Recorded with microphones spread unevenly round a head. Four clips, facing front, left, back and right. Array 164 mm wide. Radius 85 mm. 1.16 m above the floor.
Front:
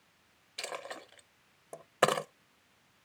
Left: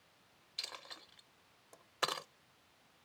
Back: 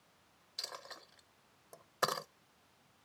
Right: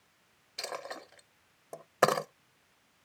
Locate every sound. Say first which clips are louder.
0.6 s a dropped coin: right 13 dB, front 9 dB; 55° right